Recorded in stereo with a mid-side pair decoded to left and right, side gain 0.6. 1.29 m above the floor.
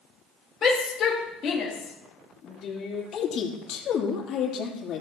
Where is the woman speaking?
50° left, 3 m.